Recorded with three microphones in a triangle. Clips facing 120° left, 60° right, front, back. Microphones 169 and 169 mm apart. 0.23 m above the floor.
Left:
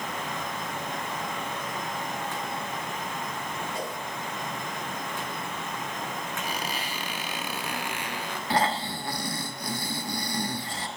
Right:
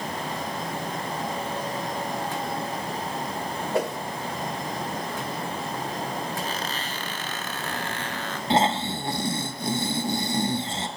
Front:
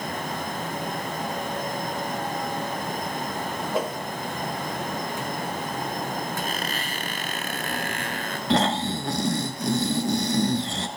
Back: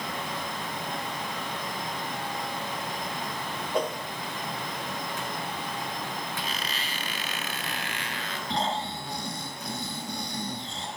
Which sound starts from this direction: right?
A whoosh, at 3.7 s.